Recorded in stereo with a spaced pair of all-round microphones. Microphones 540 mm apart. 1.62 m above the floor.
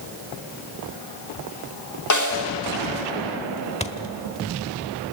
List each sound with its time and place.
2.1 s a snare drum: 30° left (ahead or behind), 3 m
3.8 s a thud: 10° left (ahead or behind), 1.4 m